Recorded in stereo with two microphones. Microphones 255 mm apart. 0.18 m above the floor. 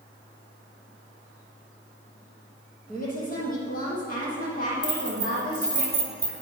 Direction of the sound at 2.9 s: 35° left (ahead or behind).